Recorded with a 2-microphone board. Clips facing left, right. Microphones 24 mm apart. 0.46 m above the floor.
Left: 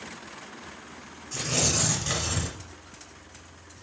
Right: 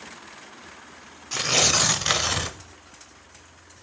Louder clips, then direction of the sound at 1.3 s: Right 6 dB; 50° right (ahead or behind).